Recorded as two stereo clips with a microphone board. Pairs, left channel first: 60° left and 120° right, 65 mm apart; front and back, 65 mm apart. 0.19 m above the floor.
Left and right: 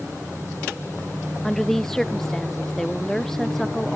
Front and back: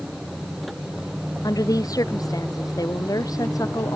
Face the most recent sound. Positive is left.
turn(degrees=-25)